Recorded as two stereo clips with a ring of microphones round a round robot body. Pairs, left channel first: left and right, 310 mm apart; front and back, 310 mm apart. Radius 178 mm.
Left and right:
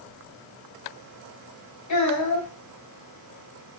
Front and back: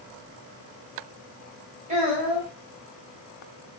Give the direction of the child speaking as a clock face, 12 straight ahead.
8 o'clock.